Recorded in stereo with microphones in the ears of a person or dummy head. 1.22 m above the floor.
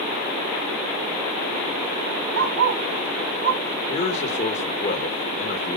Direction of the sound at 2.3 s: 75° right (ahead or behind).